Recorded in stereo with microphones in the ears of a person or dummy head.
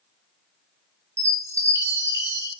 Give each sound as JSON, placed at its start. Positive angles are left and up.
{"t": 1.2, "sound": "a chime", "side_deg": -15, "distance_m": 0.8}